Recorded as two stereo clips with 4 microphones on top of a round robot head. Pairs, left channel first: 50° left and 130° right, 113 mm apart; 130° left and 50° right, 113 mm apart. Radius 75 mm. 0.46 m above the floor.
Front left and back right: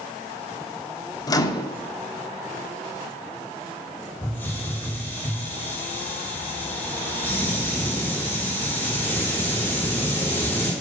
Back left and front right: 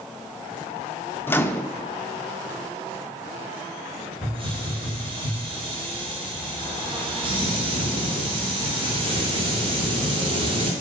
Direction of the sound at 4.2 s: 20° right.